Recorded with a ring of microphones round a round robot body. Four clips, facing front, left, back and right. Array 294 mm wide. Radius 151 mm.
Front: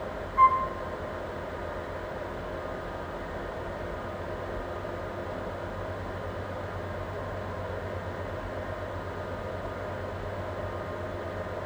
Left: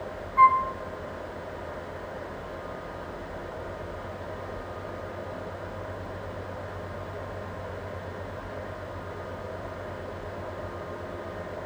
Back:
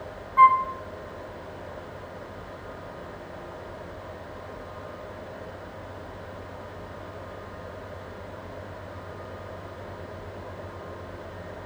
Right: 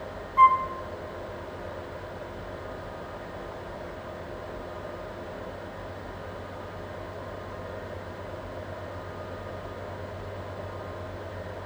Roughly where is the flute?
Behind.